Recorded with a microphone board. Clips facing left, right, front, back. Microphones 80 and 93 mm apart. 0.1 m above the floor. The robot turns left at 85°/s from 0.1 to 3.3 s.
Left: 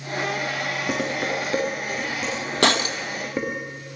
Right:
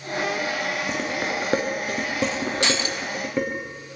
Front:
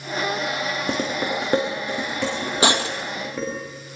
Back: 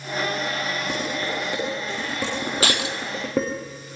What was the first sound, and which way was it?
Dishes clattering, 15° left.